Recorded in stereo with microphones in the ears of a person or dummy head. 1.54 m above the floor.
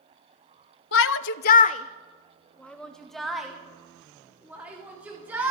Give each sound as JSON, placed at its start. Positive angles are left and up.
{"t": 0.9, "sound": "a shout", "side_deg": 70, "distance_m": 0.6}